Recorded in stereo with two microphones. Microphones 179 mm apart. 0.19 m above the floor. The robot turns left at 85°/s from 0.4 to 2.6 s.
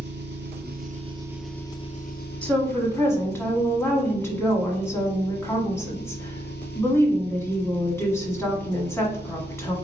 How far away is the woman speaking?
About 1.2 m.